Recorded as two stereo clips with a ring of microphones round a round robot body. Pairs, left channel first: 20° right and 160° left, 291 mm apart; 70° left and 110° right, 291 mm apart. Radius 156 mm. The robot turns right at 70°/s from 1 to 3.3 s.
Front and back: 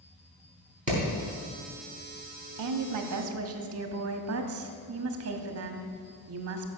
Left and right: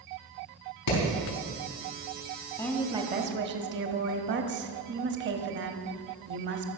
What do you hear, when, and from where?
0.9 s hammering: 90° left, 4.5 m; by 1.0 s 95° left, 4.5 m
2.6 s a woman speaking: 145° left, 1.2 m; by 6.7 s 165° right, 1.2 m